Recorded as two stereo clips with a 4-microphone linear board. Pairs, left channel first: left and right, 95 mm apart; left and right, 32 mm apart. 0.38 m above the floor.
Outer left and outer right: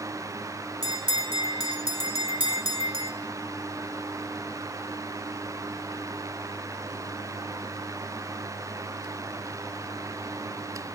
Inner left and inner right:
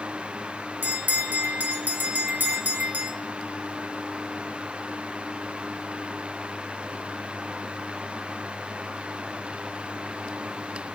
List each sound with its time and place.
0.8 s a bell: 80° right, 1.3 m